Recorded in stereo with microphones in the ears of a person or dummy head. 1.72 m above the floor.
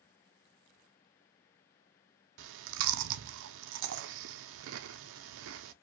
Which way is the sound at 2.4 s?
65° right (ahead or behind).